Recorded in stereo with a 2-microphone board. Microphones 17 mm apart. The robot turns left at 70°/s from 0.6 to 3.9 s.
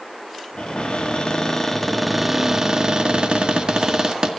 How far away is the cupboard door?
About 1.8 m.